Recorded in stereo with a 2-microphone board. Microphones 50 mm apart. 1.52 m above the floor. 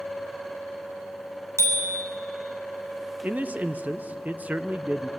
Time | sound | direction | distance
1.6 | a bicycle bell | 80° right | 4 m
3.2 | a man speaking | 30° right (ahead or behind) | 0.8 m